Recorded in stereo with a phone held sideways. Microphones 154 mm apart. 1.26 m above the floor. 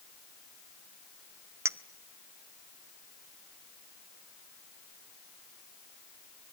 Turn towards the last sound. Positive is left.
turn(degrees=-15)  # may be behind; listen again after turning